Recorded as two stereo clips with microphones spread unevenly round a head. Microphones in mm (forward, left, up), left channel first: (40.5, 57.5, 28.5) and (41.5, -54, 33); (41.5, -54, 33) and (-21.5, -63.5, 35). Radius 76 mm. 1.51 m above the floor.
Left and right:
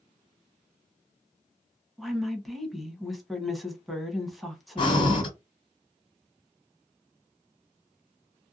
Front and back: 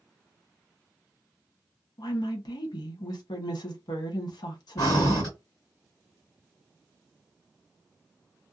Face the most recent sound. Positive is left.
turn(degrees=60)